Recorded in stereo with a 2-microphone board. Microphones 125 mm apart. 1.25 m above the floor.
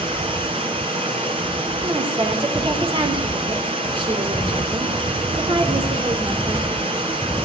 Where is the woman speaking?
45° right (ahead or behind), 3 m.